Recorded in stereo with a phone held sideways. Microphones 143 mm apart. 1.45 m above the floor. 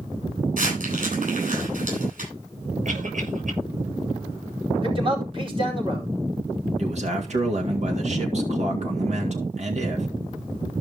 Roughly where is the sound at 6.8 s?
Right.